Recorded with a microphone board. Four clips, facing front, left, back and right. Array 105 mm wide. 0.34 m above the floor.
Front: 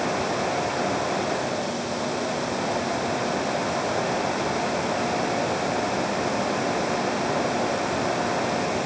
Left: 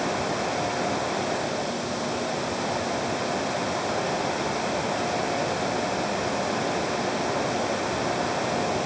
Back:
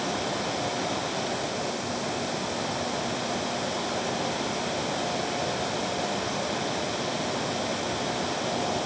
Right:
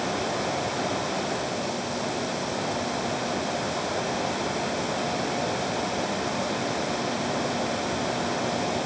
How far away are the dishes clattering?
No dishes clattering in this recording.